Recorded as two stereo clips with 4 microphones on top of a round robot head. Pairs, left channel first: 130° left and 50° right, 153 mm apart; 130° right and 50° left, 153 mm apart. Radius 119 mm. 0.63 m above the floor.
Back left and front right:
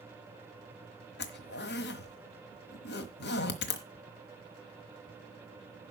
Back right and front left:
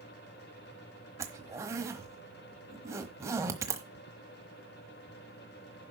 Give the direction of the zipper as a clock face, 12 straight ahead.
8 o'clock.